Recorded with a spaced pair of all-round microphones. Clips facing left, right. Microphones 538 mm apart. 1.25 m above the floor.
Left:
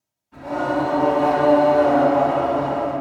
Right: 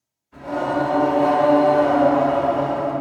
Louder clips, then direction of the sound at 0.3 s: Even; 70° left (ahead or behind).